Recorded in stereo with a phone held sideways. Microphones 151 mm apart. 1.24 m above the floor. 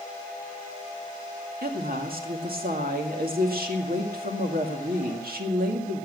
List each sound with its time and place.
1.6 s a woman speaking: 75° right (ahead or behind), 2.0 m